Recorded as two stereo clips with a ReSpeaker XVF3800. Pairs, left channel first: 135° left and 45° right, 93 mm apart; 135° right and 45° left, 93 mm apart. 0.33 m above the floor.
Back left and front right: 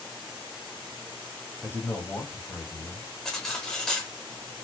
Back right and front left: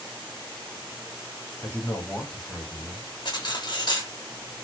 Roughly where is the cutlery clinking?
Behind right.